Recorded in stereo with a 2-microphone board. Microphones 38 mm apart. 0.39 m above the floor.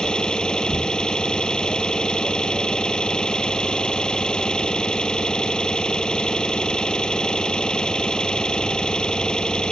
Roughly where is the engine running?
Left.